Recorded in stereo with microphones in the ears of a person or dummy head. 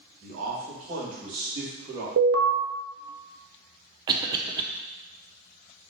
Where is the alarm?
60° right (ahead or behind), 0.8 m.